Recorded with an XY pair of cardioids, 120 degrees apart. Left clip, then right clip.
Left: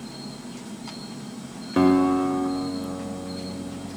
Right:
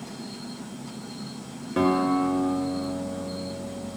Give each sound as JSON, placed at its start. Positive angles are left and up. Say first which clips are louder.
{"t": 1.8, "sound": "a guitar", "louder": "left 3 dB", "azimuth_deg": 25, "distance_m": 0.7}